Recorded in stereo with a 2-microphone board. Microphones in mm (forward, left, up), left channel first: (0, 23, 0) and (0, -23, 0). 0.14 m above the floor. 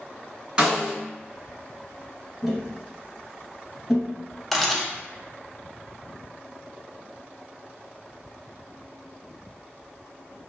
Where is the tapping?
5° right (ahead or behind), 1.2 m.